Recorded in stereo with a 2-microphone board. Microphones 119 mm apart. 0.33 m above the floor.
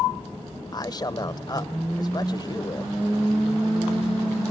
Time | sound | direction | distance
0.7 | a man speaking | 35° left (ahead or behind) | 1.0 m